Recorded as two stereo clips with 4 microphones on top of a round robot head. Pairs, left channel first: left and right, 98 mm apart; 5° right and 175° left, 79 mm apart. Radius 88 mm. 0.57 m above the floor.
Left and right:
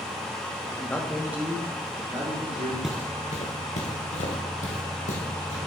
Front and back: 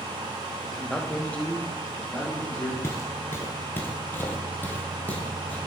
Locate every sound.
0.7 s a man speaking: 85° left, 1.3 m; by 2.7 s 70° right, 2.5 m
2.8 s footsteps: 10° right, 0.5 m; by 5.6 s 65° left, 2.5 m